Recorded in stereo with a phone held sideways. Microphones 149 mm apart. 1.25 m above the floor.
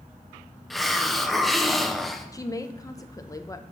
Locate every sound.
0.7 s a hiss: centre (ahead or behind), 0.6 m
2.3 s a woman speaking: 20° left (ahead or behind), 0.7 m